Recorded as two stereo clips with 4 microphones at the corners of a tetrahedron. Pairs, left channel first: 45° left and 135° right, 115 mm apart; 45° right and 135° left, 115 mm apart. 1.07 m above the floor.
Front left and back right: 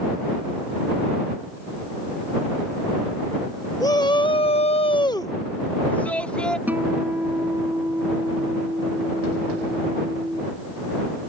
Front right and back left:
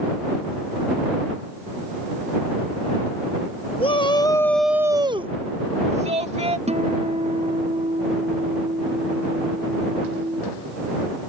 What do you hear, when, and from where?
3.8 s a shout: 10° right; by 6.6 s 125° left
6.7 s a guitar: 150° left